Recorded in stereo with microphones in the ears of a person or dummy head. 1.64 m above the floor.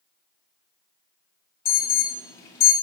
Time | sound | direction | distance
1.6 | an alarm | 20° left (ahead or behind) | 2.5 m